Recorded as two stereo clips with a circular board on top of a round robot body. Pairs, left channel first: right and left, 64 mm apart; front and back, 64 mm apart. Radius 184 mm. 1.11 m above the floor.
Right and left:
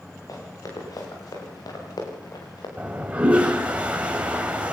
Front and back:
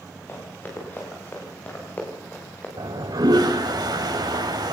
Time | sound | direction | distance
0.3 | running footsteps | 60° right | 9 m
2.8 | a toilet flushing | 165° left | 2 m